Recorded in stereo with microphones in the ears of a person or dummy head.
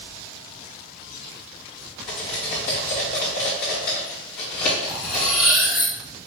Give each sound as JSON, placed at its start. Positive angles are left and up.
{"t": 2.1, "sound": "cutlery clinking", "side_deg": 20, "distance_m": 0.8}
{"t": 4.9, "sound": "cutlery clinking", "side_deg": 0, "distance_m": 0.8}